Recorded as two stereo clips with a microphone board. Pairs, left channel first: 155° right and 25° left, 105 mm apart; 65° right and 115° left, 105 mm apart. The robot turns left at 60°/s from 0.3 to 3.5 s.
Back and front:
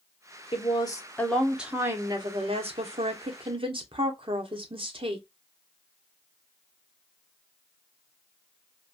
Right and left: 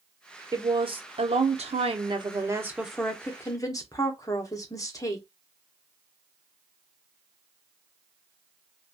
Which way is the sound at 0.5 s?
170° left.